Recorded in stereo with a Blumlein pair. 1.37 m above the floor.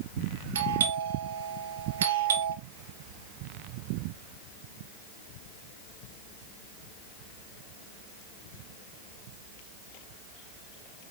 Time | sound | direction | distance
0.6 | a doorbell | 60° right | 1.4 m